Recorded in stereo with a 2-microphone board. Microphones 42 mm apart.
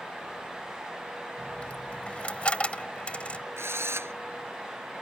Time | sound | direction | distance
1.4 | a dropped coin | 30° left (ahead or behind) | ?
3.6 | a drill | 85° right | ?